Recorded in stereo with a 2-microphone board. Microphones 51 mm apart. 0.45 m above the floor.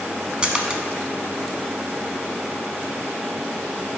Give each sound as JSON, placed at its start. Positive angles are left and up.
{"t": 0.4, "sound": "a splash", "side_deg": -20, "distance_m": 0.6}